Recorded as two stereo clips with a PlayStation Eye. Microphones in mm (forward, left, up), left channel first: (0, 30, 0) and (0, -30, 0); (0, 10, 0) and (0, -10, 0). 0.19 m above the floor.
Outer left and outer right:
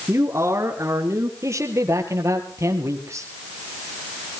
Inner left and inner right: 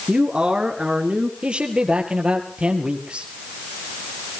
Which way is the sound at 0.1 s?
45° right (ahead or behind).